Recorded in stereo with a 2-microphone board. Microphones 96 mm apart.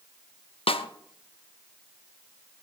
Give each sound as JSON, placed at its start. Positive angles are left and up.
{"t": 0.7, "sound": "a snare drum", "side_deg": 80, "distance_m": 0.6}